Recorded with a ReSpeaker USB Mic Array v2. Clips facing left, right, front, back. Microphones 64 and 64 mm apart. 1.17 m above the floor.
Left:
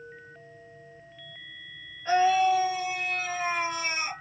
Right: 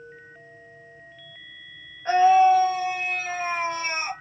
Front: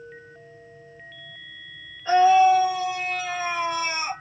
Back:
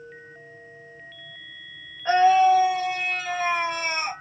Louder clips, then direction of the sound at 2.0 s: Right 6 dB, front 1 dB; 135° right.